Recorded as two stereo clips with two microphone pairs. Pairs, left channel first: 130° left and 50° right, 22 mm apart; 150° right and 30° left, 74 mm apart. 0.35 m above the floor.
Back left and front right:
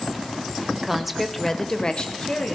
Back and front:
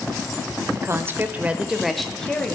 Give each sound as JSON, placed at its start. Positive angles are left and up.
{"t": 0.8, "sound": "a woman speaking", "azimuth_deg": 10, "distance_m": 1.0}